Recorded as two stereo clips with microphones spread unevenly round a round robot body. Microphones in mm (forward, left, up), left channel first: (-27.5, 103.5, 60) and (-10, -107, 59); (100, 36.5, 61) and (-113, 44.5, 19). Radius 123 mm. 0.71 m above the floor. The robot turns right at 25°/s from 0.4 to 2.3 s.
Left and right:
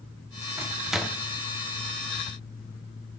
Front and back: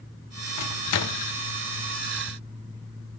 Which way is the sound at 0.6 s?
5° right.